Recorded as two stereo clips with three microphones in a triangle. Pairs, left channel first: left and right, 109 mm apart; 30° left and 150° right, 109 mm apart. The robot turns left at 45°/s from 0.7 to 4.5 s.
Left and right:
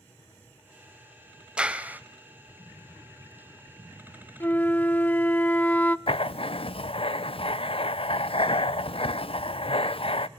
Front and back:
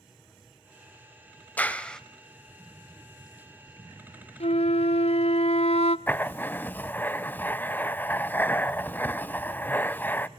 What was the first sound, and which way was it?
A clap, 25° right.